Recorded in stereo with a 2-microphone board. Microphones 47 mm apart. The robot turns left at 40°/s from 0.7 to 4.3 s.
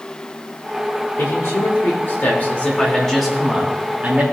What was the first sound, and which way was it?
A man speaking, 85° left.